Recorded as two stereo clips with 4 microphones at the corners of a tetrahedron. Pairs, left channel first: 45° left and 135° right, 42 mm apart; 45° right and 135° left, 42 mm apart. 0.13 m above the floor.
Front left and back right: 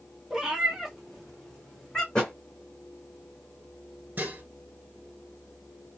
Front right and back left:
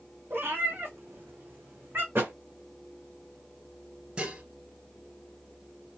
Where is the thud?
115° left, 1.6 m.